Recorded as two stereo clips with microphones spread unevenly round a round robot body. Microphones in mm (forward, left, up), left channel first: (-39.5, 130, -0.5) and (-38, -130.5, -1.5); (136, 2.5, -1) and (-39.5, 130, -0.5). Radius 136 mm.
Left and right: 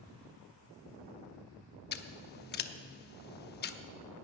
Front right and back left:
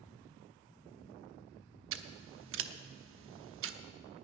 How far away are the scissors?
About 0.8 m.